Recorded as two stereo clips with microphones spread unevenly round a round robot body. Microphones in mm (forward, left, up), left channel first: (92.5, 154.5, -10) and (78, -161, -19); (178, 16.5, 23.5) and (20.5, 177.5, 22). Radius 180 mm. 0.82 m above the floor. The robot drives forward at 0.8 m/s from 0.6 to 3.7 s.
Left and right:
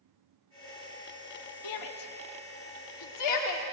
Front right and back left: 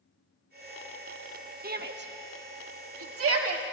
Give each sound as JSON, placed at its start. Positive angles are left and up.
{"t": 1.6, "sound": "a shout", "azimuth_deg": 90, "distance_m": 1.6}